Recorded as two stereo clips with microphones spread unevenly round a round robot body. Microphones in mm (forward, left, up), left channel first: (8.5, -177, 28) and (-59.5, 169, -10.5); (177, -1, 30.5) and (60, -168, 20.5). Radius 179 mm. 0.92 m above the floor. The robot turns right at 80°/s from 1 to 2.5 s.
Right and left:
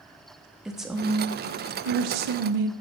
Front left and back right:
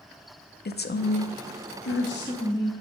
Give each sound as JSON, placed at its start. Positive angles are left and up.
{"t": 0.7, "sound": "a woman speaking", "azimuth_deg": 15, "distance_m": 1.4}